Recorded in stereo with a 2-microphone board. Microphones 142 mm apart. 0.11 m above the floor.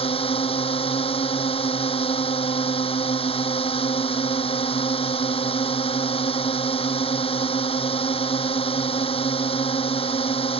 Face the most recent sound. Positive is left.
turn(degrees=40)  # may be behind; listen again after turning